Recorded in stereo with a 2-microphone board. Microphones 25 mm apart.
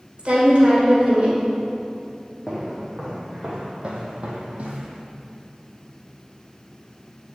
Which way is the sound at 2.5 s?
20° right (ahead or behind).